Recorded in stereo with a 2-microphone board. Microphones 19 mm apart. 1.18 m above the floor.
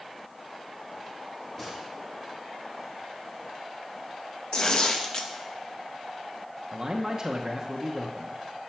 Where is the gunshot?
20° left (ahead or behind), 3.5 m.